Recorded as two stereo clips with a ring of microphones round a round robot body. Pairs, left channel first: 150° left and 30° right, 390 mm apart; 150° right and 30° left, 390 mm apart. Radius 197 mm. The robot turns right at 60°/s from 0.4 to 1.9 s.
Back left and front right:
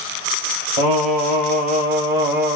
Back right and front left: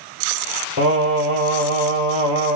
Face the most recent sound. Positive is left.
turn(degrees=35)